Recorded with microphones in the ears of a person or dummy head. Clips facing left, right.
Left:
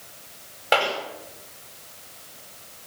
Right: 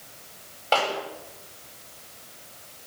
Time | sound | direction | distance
0.7 | a clap | 25° left (ahead or behind) | 9.5 m